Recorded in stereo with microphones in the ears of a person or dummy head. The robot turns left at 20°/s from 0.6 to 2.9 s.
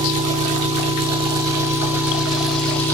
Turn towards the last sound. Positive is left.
turn(degrees=170)